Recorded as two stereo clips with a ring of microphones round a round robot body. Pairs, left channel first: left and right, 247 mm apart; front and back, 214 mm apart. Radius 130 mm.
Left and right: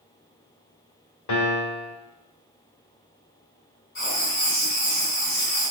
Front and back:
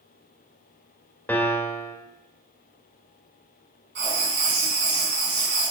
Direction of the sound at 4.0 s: 145° left.